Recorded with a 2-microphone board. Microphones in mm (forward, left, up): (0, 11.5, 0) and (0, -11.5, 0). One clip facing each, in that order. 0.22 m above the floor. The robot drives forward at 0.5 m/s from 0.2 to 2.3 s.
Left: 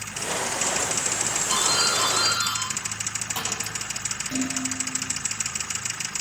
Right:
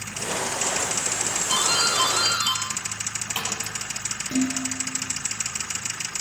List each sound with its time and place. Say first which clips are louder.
1.5 s a doorbell: right 1 dB; 75° right (ahead or behind), 7 m
4.3 s dishes clattering: right 4 dB; 60° right (ahead or behind), 2.5 m